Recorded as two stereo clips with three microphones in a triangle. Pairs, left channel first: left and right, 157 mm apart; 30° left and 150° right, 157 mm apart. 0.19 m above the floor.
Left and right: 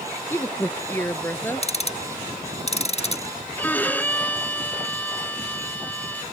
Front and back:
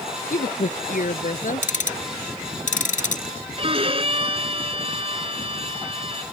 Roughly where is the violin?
Behind.